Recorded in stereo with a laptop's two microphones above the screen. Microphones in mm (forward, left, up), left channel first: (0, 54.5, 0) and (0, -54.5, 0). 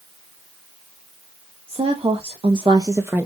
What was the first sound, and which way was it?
A woman speaking, 60° right (ahead or behind).